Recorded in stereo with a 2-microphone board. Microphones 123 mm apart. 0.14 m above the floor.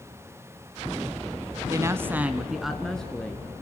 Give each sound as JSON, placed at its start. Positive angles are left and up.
{"t": 1.7, "sound": "a woman speaking", "side_deg": -25, "distance_m": 1.1}